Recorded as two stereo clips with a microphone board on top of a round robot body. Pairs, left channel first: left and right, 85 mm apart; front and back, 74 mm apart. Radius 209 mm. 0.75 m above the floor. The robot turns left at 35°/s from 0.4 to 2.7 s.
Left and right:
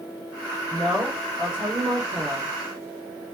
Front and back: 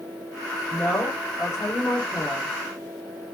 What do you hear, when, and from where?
0.7 s a woman speaking: 40° right, 1.7 m; by 2.5 s 105° right, 1.7 m